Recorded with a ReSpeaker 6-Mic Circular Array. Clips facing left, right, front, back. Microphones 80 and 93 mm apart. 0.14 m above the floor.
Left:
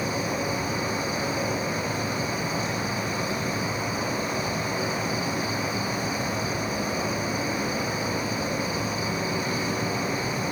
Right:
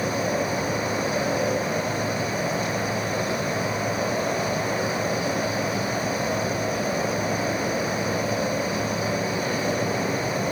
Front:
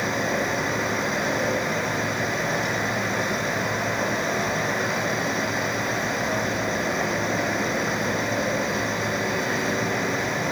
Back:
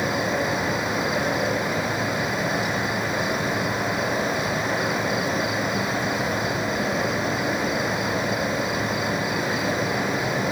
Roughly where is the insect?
Right.